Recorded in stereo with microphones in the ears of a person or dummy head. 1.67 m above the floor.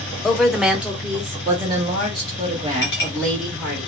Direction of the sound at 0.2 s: Centre (ahead or behind).